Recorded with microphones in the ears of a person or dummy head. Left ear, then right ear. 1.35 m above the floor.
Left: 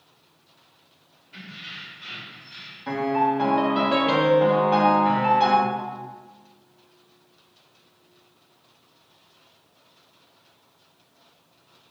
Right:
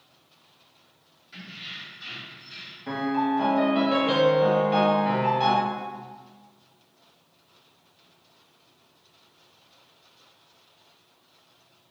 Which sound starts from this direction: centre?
A piano, at 2.9 s.